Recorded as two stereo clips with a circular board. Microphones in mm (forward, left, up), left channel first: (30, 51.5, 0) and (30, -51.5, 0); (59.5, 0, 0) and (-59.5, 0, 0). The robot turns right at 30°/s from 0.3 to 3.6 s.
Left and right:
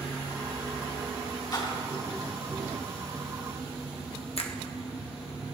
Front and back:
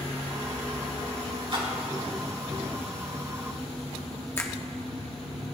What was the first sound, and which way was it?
A splash, 135° left.